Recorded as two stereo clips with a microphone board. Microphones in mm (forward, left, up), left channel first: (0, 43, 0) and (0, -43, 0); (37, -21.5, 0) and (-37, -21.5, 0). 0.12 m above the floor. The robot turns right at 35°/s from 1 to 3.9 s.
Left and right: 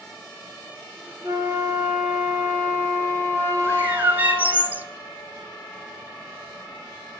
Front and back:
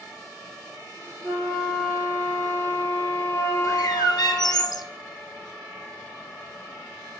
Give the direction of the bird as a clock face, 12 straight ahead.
1 o'clock.